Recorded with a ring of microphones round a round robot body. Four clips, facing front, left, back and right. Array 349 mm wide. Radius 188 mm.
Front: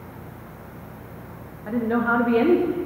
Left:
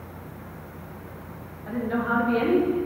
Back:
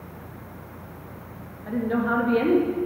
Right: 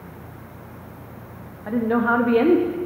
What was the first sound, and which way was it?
A woman speaking, 70° right.